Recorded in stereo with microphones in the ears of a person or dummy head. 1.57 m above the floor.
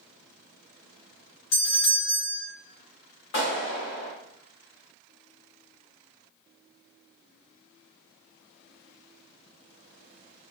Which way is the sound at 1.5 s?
65° left (ahead or behind).